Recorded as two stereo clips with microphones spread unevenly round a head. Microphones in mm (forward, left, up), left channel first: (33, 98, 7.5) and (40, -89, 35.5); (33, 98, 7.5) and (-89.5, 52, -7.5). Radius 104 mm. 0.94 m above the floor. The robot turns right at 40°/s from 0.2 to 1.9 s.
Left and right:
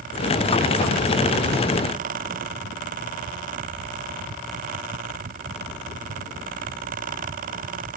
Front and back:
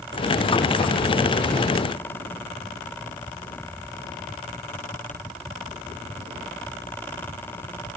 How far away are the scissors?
No scissors in this recording.